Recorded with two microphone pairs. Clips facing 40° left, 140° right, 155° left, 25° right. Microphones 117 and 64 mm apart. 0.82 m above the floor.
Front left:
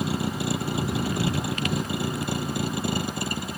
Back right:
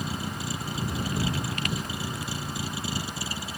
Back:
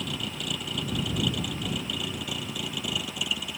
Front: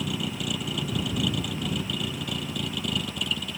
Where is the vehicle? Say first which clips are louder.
Front left 6 dB, front 3 dB; 60° left; by 3.6 s 70° left.